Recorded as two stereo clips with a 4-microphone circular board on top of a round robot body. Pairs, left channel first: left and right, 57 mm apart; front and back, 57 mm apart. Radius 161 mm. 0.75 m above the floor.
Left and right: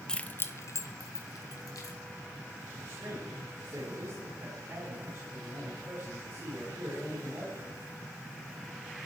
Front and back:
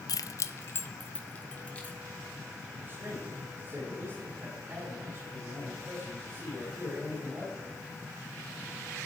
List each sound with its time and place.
0.1 s keys jangling: 10° left, 0.6 m; by 2.0 s 70° left, 2.5 m
2.8 s a man speaking: 125° right, 6.5 m